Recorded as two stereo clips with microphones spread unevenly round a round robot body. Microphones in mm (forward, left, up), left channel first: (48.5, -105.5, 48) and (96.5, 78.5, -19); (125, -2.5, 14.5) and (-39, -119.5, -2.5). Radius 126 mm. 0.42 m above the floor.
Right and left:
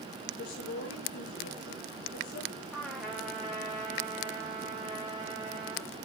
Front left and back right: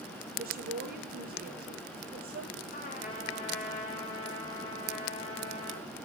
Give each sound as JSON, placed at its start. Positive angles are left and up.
{"t": 0.4, "sound": "a woman speaking", "azimuth_deg": -105, "distance_m": 9.0}
{"t": 2.7, "sound": "a trumpet", "azimuth_deg": -10, "distance_m": 7.5}